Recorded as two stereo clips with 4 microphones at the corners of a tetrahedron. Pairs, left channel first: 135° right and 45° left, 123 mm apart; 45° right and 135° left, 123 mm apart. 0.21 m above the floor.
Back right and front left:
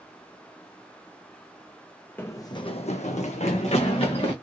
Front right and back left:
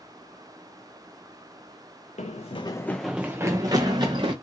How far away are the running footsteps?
About 0.6 m.